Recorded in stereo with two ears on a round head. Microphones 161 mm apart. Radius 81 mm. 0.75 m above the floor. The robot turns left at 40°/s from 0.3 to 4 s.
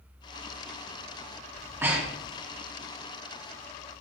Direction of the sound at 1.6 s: 20° right (ahead or behind).